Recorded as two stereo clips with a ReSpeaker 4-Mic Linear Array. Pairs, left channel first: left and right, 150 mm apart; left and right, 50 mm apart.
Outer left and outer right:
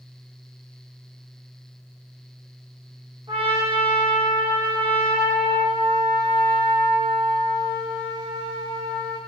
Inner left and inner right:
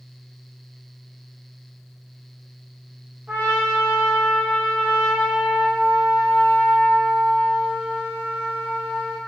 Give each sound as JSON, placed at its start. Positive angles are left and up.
{"t": 3.3, "sound": "a trumpet", "side_deg": -35, "distance_m": 1.2}